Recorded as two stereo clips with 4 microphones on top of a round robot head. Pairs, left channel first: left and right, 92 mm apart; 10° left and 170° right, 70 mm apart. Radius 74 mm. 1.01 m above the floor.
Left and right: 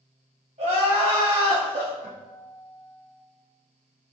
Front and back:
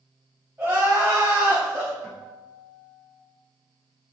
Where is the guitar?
90° right, 2.5 m.